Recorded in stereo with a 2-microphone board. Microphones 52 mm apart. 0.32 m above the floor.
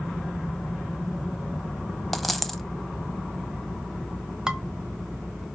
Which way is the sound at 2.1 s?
Centre (ahead or behind).